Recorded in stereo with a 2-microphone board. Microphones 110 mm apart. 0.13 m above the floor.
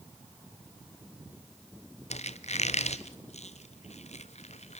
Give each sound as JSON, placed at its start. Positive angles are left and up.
{"t": 2.1, "sound": "a squeak", "side_deg": 80, "distance_m": 1.3}